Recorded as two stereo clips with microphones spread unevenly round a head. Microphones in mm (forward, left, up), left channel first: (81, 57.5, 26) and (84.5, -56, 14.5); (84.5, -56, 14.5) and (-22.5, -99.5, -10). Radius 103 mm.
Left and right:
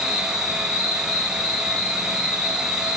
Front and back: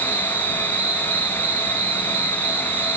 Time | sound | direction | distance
0.0 | an insect | 155° left | 5 m